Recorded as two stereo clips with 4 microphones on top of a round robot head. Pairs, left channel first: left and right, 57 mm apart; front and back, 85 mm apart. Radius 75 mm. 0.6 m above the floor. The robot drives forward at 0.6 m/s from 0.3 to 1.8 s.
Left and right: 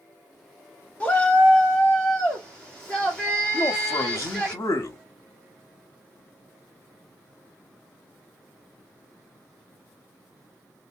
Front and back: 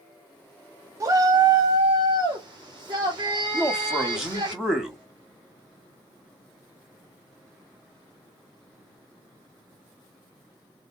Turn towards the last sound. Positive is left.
turn(degrees=95)